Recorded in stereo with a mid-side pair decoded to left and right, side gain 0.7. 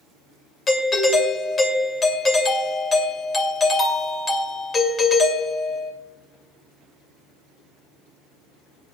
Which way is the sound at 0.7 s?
30° left.